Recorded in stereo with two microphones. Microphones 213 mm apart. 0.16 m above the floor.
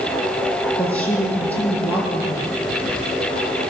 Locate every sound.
0.8 s a woman speaking: 5° left (ahead or behind), 6 m